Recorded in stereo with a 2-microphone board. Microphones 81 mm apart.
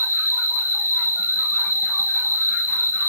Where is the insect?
35° left (ahead or behind), 0.9 m.